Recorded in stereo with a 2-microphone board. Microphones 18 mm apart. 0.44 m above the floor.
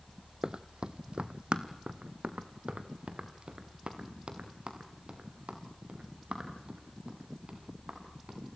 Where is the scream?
I don't hear a scream.